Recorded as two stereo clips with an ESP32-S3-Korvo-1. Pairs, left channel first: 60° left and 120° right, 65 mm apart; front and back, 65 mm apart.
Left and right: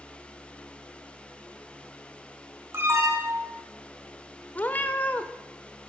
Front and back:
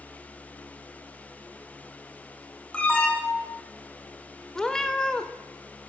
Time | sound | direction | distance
2.7 | an alarm | 70° right | 2.5 m
4.5 | a cat meowing | 70° left | 0.9 m